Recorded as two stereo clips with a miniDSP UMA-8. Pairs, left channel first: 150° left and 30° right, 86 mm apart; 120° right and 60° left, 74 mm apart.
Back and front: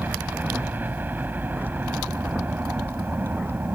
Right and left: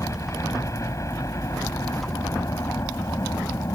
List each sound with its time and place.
0.0 s a helicopter: 90° right